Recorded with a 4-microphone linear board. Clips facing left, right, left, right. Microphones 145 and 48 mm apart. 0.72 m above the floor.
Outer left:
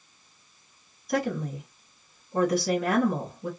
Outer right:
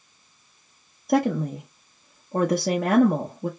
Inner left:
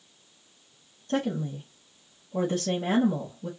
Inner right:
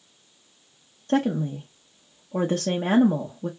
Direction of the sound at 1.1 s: 55° right (ahead or behind).